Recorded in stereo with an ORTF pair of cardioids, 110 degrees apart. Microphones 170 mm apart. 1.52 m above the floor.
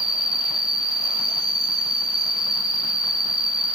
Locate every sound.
0.0 s an insect: straight ahead, 2.5 m